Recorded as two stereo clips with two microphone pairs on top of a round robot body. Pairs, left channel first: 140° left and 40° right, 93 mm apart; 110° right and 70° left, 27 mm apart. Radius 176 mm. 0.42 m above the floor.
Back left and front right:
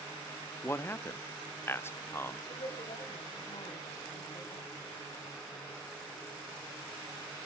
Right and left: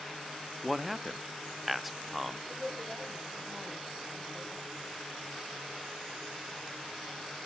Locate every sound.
0.6 s a man speaking: 145° left, 0.8 m
2.5 s a woman speaking: 145° left, 4 m